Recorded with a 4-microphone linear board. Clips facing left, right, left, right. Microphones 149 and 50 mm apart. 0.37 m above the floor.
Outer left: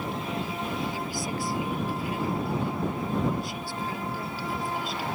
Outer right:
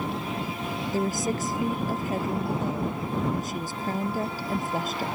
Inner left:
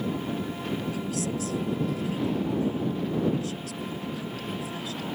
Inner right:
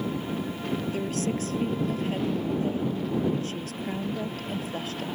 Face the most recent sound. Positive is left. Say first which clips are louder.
# outer right 5 dB, inner right 2 dB
turn(degrees=-45)  # may be behind; listen again after turning